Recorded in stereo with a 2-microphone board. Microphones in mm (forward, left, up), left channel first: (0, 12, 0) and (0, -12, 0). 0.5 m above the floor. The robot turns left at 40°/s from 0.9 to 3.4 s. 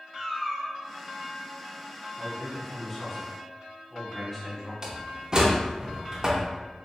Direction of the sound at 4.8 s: 35° right (ahead or behind).